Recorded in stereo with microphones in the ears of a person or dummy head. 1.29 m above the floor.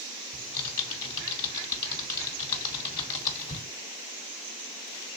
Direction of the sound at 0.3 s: 25° left (ahead or behind).